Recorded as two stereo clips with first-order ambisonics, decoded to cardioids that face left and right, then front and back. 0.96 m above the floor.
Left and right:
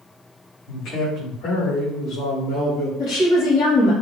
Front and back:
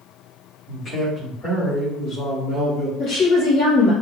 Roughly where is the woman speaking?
Ahead left.